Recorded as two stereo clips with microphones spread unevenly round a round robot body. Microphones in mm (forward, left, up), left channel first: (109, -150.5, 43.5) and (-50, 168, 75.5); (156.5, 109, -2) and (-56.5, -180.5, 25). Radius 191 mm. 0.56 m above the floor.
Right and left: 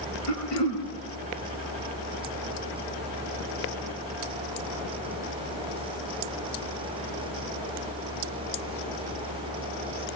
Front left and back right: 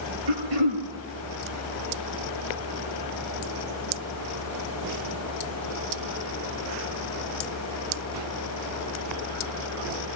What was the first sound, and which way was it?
Throat clearing, 115° right.